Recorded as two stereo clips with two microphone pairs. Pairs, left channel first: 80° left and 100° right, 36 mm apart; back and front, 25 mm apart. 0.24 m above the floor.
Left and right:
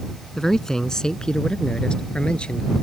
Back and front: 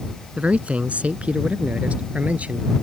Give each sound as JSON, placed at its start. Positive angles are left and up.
{"t": 0.4, "sound": "a man speaking", "azimuth_deg": 0}